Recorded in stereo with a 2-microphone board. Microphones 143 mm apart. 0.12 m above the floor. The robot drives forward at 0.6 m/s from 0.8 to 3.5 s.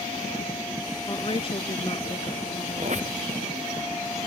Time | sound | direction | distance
1.1 | a woman speaking | 40° left (ahead or behind) | ?
2.8 | a squeak | 55° right (ahead or behind) | ?